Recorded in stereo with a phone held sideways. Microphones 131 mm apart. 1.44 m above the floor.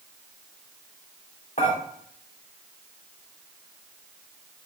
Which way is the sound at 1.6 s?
75° left (ahead or behind).